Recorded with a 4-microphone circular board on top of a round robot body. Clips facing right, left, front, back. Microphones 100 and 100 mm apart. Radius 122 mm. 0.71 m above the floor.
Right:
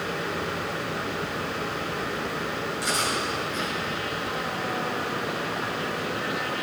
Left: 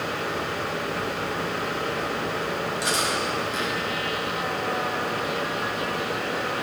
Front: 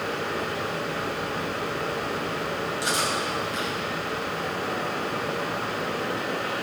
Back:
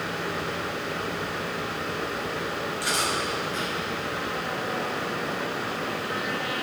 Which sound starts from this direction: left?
Cutlery clinking, at 2.8 s.